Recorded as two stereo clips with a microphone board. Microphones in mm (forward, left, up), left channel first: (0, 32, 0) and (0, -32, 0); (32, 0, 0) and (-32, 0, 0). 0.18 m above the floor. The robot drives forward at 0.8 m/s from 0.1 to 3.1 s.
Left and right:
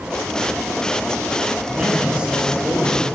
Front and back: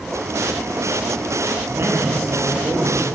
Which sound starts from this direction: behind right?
A man speaking, at 1.7 s.